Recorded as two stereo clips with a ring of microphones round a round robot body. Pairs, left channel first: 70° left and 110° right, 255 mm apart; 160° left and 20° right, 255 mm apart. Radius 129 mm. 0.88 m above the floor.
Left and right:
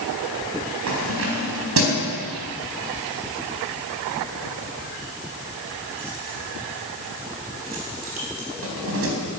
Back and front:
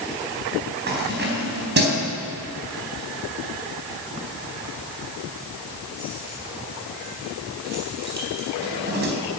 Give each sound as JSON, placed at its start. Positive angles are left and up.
{"t": 0.9, "sound": "keys jangling", "azimuth_deg": -75, "distance_m": 4.0}